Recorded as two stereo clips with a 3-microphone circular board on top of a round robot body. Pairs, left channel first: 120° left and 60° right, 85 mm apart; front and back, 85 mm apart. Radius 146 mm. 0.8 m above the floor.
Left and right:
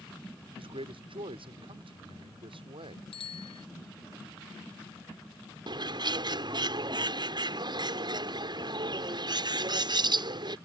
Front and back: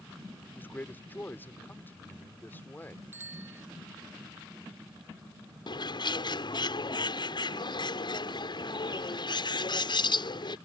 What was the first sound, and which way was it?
A man speaking, 70° right.